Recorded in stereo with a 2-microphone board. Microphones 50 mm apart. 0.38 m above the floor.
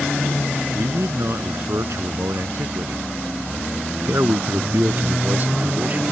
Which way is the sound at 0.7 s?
75° right (ahead or behind).